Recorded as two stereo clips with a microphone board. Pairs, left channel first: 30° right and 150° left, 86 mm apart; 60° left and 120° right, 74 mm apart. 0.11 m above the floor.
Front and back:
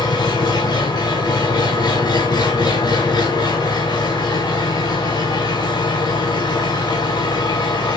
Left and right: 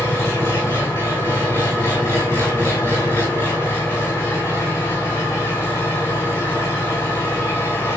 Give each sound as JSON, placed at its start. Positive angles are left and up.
{"t": 0.0, "sound": "an engine running", "azimuth_deg": 0, "distance_m": 5.5}